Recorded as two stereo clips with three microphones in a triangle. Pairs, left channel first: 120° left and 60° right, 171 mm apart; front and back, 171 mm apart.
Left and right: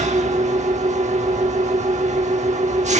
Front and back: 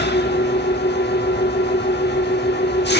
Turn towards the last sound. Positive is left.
turn(degrees=-10)